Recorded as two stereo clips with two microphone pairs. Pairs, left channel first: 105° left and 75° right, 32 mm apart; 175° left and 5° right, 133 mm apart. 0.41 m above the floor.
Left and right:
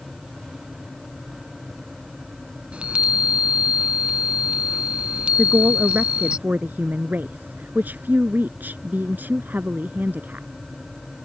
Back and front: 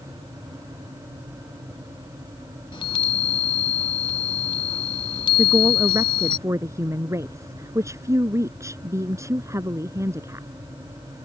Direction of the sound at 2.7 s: 130° right.